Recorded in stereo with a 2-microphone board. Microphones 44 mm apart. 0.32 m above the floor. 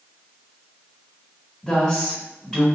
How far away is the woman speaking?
About 1.5 m.